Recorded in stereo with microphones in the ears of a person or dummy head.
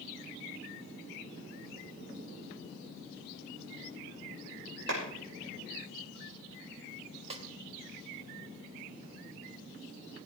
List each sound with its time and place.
4.9 s a clap: 65° right (ahead or behind), 5.5 m
7.3 s a snare drum: 30° right (ahead or behind), 1.8 m